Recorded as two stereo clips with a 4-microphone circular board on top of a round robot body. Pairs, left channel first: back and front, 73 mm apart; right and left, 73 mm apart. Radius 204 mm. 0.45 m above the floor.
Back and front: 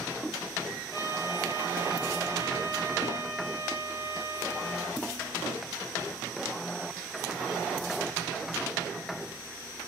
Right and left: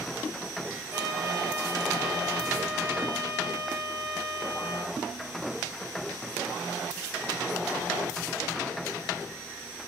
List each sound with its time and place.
0.9 s a trumpet: 145° left, 7 m